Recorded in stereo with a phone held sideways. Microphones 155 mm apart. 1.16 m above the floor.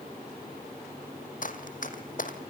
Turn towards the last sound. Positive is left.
turn(degrees=60)  # may be behind; listen again after turning